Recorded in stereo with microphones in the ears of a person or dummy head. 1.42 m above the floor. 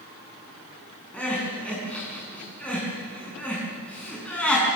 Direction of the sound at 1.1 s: 5° left (ahead or behind).